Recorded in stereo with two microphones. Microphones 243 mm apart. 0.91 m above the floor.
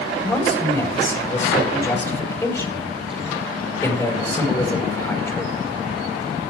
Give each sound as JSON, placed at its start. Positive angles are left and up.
{"t": 0.2, "sound": "a man speaking", "side_deg": 10, "distance_m": 4.0}